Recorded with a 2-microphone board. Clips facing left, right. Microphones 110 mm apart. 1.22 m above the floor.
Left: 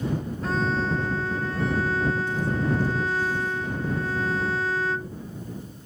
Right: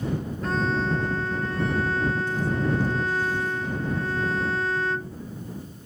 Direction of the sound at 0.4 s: Centre (ahead or behind).